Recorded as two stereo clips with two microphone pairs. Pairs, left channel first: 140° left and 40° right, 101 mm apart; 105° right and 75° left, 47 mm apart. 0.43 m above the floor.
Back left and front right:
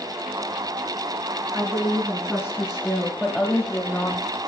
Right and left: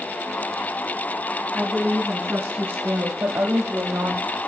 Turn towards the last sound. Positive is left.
turn(degrees=90)